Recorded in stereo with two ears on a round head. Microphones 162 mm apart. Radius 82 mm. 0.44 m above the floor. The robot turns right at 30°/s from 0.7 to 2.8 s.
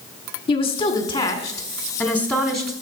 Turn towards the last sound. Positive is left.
turn(degrees=180)